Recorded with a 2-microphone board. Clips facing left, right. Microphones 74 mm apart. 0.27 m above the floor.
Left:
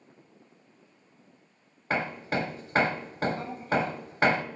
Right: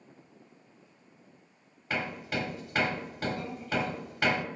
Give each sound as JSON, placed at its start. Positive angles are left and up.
{"t": 1.9, "sound": "hammering", "side_deg": 40, "distance_m": 0.7}